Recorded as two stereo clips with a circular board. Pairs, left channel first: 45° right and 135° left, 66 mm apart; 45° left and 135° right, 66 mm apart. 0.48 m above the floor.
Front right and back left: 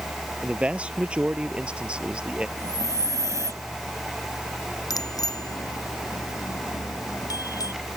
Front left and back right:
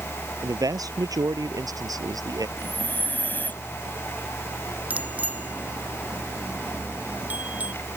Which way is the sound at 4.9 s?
70° right.